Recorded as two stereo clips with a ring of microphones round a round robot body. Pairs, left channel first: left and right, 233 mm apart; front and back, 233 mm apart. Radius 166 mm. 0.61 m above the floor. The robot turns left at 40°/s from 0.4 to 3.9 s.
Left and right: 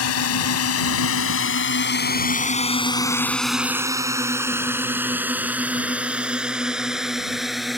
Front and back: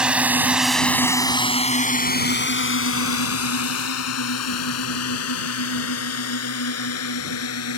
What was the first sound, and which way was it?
A drone, 95° left.